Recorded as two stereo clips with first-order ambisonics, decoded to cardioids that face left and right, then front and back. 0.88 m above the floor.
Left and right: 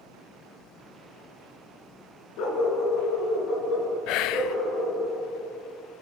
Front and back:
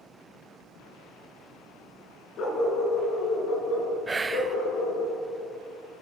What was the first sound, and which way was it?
A dog barking, 55° left.